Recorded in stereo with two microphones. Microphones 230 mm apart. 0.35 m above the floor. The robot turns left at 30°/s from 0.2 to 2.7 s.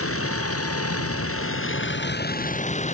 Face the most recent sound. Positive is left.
turn(degrees=30)